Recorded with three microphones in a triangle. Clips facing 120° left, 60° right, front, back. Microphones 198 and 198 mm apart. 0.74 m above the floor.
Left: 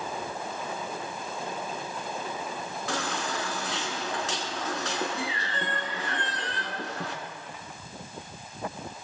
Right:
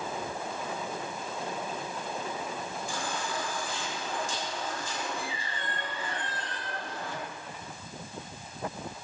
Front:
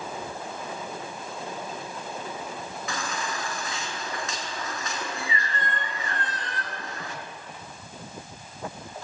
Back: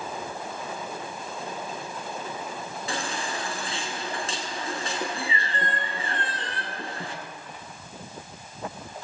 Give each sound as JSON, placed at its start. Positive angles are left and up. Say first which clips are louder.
{"t": 2.9, "sound": "a baby crying", "louder": "left 5 dB, back 2 dB", "azimuth_deg": 120, "distance_m": 3.5}